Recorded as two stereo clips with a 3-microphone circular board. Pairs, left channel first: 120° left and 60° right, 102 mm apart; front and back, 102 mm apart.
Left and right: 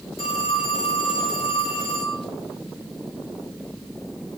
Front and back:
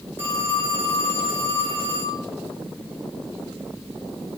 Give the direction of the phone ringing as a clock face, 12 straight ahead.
8 o'clock.